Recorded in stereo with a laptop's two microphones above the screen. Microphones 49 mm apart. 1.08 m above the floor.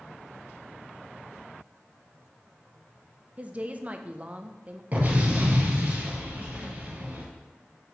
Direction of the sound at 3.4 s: 30° right (ahead or behind).